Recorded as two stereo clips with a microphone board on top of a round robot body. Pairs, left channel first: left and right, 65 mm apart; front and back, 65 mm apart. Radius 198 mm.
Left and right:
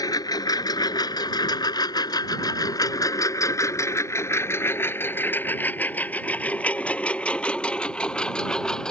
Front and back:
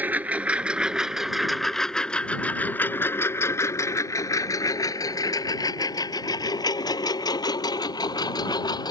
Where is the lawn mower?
115° left; by 8.9 s 10° left.